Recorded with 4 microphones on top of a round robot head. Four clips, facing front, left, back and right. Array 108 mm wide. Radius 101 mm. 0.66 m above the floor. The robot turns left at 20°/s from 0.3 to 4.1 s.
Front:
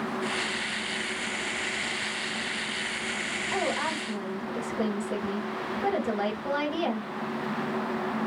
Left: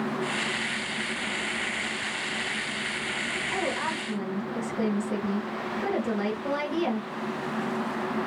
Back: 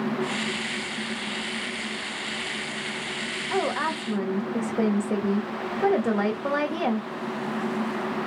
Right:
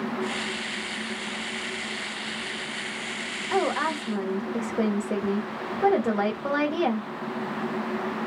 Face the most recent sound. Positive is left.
turn(degrees=-135)